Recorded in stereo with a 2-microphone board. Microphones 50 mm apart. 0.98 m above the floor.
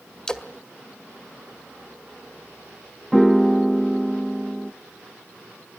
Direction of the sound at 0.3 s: 10° left (ahead or behind).